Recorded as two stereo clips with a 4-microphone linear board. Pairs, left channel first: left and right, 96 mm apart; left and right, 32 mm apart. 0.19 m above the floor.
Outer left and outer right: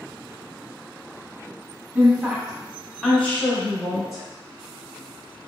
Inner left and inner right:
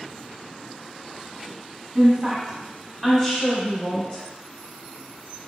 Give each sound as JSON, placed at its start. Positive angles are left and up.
{"t": 1.9, "sound": "a woman speaking", "side_deg": -25, "distance_m": 1.1}